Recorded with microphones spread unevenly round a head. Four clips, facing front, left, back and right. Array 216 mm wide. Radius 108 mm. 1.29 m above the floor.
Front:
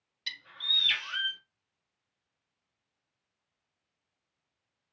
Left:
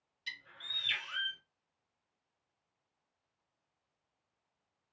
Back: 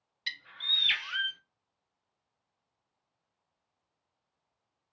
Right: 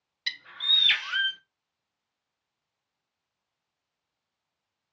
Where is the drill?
No drill in this recording.